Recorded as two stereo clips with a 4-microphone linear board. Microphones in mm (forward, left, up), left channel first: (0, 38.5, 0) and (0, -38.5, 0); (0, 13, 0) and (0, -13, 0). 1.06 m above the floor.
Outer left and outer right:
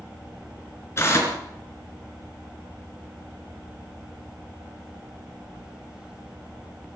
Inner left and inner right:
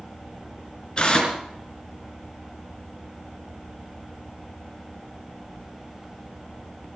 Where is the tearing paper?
35° left (ahead or behind), 3.5 m.